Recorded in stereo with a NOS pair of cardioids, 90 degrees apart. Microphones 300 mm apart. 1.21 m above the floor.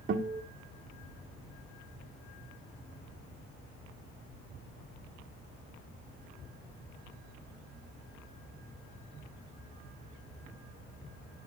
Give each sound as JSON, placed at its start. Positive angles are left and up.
{"t": 0.1, "sound": "a guitar", "azimuth_deg": -50, "distance_m": 2.0}